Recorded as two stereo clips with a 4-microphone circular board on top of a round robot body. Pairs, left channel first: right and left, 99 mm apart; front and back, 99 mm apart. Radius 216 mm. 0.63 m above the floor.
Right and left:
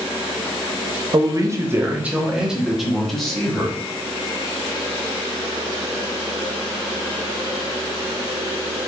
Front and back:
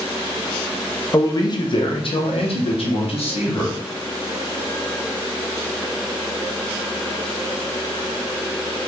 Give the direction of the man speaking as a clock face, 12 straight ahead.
10 o'clock.